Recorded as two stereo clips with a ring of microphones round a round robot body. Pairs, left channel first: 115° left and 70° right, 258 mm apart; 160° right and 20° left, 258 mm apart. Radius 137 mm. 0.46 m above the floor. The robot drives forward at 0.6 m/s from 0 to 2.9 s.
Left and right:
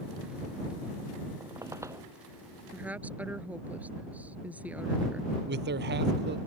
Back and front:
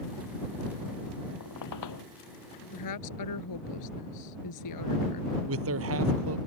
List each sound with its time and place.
1.4 s a squeak: 145° right; by 2.1 s 150° right
2.7 s a woman speaking: 150° right
5.5 s a man speaking: 15° right